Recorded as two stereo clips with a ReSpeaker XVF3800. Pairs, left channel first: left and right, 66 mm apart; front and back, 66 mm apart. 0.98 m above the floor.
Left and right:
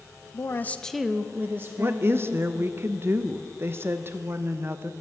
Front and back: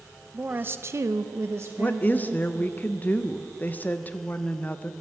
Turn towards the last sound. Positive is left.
turn(degrees=-55)